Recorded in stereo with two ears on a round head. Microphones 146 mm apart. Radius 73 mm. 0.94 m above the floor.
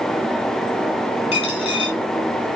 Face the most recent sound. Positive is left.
turn(degrees=35)  # may be behind; listen again after turning